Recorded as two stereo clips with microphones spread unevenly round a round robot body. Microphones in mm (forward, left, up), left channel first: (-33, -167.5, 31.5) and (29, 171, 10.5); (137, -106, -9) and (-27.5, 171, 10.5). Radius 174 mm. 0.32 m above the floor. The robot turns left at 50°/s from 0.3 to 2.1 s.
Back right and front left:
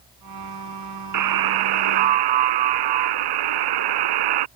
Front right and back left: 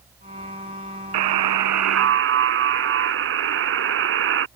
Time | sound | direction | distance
1.1 | a buzzer | 120° left | ?